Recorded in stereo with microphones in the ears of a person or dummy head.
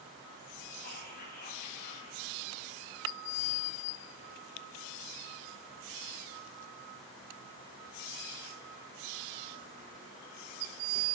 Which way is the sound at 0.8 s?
45° left (ahead or behind).